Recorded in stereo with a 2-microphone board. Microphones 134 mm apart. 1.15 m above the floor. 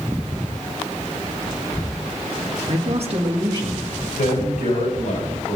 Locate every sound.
2.7 s a man speaking: 60° right (ahead or behind), 1.8 m; by 3.9 s 25° right (ahead or behind), 2 m
4.2 s a man speaking: 75° left (ahead or behind), 7 m